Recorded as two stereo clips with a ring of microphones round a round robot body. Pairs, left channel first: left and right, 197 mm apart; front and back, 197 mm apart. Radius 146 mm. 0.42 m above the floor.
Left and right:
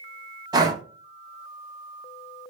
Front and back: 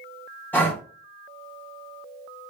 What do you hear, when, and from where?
0.5 s breathing: 65° right, 0.6 m